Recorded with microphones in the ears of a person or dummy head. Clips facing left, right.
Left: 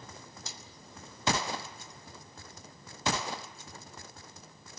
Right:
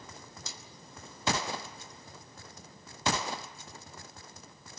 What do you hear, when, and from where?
0.5 s a snare drum: 75° right (ahead or behind), 5 m